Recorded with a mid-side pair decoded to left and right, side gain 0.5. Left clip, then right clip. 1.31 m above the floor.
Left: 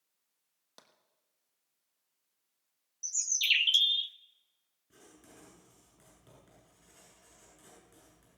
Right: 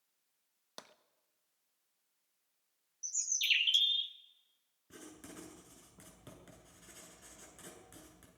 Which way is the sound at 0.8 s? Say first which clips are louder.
Right 8 dB; 45° right.